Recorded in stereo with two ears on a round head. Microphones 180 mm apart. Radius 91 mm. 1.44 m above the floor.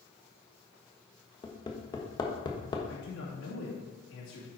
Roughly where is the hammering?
Left.